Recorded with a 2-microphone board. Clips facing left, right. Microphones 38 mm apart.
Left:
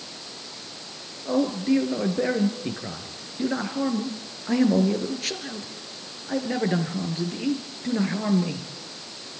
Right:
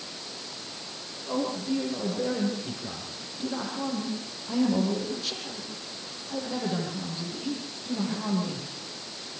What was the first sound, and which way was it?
A man speaking, 55° left (ahead or behind).